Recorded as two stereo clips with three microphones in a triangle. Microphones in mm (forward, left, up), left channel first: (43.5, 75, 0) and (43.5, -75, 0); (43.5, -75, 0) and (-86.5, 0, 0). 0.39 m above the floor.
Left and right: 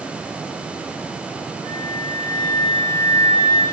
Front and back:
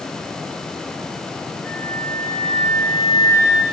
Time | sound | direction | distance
1.6 | a flute | 150° left | 8 m